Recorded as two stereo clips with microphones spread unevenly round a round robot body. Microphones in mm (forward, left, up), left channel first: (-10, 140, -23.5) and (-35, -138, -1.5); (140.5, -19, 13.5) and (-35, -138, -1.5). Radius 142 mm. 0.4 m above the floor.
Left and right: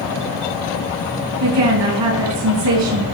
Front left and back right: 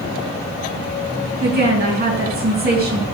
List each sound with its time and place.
1.4 s a woman speaking: 105° right, 3.5 m